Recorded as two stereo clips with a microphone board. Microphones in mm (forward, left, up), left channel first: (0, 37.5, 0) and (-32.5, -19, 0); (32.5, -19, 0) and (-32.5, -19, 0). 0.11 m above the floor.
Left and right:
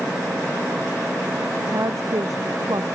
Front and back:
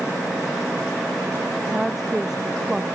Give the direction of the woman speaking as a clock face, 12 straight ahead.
3 o'clock.